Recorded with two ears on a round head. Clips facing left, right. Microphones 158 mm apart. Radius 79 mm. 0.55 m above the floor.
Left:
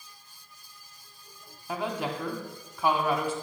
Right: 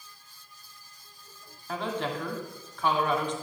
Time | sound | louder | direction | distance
1.7 | a woman speaking | even | 10° left (ahead or behind) | 1.3 m